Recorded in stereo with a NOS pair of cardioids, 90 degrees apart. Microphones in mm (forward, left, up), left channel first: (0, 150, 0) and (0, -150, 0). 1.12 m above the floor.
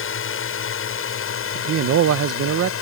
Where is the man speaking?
55° right.